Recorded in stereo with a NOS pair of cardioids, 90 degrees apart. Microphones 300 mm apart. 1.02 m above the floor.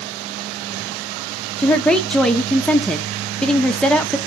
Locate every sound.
1.6 s a woman speaking: 5° left, 0.7 m